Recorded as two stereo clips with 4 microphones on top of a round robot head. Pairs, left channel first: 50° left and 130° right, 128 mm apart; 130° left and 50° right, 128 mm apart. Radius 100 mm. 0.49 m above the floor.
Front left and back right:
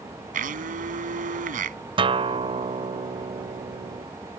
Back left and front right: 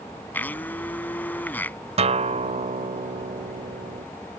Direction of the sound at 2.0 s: 85° right.